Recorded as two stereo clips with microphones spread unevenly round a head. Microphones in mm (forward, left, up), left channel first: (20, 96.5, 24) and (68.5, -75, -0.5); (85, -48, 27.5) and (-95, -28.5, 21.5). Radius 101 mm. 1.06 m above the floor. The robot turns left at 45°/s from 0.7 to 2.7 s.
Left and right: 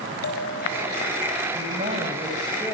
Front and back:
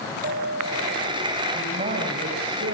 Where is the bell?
130° left, 5 m; by 1.4 s 95° left, 5 m.